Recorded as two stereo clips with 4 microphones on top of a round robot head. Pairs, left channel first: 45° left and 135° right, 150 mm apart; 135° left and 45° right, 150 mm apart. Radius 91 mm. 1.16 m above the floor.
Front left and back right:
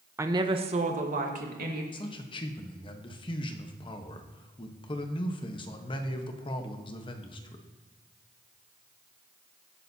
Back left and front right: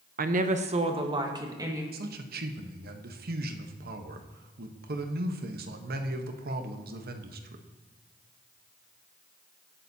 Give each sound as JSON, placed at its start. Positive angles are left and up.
{"t": 0.2, "sound": "a woman speaking", "azimuth_deg": -65, "distance_m": 1.0}
{"t": 1.9, "sound": "a man speaking", "azimuth_deg": -15, "distance_m": 1.1}